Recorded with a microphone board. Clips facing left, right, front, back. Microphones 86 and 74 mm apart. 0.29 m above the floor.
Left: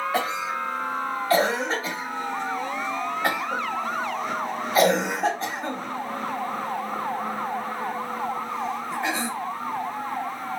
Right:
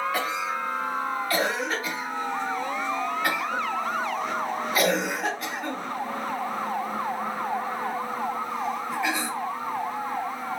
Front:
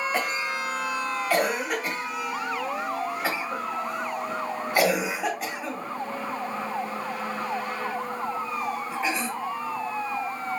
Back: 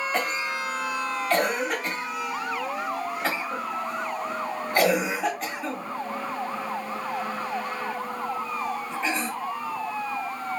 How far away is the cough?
About 1.1 m.